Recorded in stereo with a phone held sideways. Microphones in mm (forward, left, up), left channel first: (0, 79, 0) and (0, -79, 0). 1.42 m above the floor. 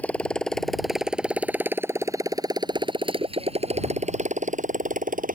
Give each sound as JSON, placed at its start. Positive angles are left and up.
{"t": 0.0, "sound": "a motorcycle", "side_deg": 10}